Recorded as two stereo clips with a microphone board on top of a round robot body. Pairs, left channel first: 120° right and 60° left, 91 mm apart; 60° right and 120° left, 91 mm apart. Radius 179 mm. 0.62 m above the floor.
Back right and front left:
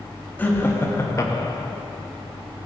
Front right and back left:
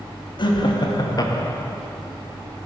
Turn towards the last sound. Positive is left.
turn(degrees=-110)